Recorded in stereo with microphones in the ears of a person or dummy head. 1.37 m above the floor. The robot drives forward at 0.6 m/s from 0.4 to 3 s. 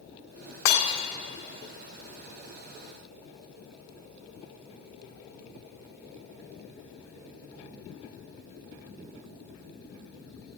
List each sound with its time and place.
0.7 s breaking glass: 70° left (ahead or behind), 2 m